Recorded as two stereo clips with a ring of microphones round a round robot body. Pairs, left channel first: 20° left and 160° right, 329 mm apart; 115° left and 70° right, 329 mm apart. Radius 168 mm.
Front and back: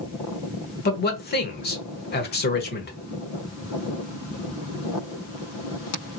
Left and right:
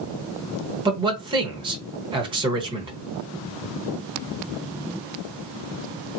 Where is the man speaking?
5° right, 1.0 m.